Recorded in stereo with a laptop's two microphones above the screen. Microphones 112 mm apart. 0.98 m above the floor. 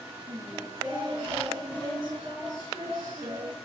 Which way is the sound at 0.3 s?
45° right (ahead or behind).